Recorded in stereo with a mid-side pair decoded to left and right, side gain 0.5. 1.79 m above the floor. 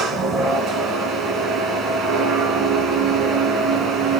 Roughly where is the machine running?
Ahead right.